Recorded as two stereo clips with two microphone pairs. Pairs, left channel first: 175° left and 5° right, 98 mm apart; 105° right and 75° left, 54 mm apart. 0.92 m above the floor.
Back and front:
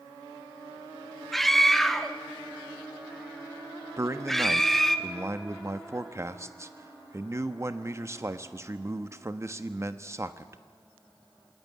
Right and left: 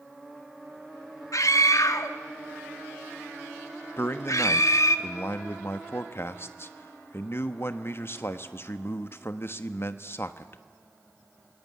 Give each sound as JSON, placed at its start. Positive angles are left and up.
{"t": 1.3, "sound": "a scream", "azimuth_deg": -100, "distance_m": 1.5}
{"t": 4.0, "sound": "a man speaking", "azimuth_deg": -65, "distance_m": 1.2}